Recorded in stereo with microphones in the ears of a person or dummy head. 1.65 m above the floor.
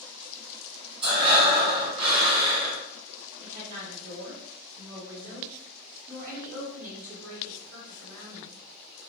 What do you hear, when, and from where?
1.0 s breathing: 30° right (ahead or behind), 1.3 m
3.4 s a woman speaking: 80° right, 1.5 m